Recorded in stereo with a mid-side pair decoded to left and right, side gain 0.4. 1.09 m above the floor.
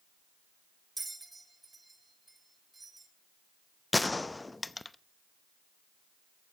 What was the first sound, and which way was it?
A bell, 20° right.